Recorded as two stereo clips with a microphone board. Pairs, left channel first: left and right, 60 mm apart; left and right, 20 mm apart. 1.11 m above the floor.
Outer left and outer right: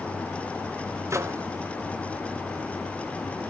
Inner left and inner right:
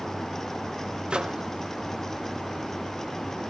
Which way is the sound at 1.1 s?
50° right (ahead or behind).